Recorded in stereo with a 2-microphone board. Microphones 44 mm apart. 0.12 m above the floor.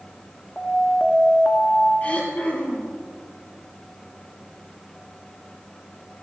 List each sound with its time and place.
0.6 s an alarm: 20° left (ahead or behind), 1.2 m
2.0 s throat clearing: 35° left (ahead or behind), 3 m